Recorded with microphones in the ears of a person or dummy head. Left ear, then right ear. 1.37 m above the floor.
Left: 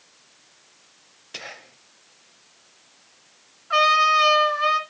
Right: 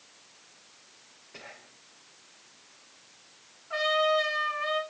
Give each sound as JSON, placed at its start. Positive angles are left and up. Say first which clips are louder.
{"t": 1.3, "sound": "whispering", "louder": "left 10 dB", "side_deg": 75, "distance_m": 0.9}
{"t": 3.7, "sound": "a trumpet", "louder": "left 8 dB", "side_deg": 60, "distance_m": 2.5}